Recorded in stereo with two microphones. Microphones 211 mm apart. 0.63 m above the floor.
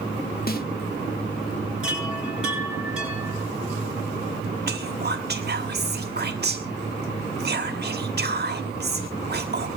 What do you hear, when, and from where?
0.5 s a snare drum: 45° left (ahead or behind), 1.2 m
1.8 s a chime: 5° right (ahead or behind), 7.5 m
4.7 s whispering: 50° right (ahead or behind), 1.3 m